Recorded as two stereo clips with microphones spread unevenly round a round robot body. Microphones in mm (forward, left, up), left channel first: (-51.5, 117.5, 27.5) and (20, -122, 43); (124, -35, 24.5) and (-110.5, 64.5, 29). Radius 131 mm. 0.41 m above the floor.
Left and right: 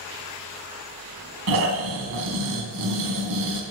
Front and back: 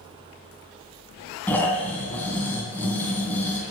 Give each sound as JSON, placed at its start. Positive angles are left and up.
{"t": 1.5, "sound": "snoring", "azimuth_deg": -105, "distance_m": 2.5}